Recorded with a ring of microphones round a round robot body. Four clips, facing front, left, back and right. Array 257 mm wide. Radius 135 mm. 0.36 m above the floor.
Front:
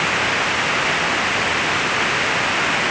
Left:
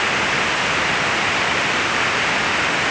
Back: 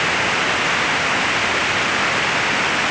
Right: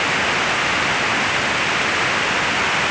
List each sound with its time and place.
Only background noise.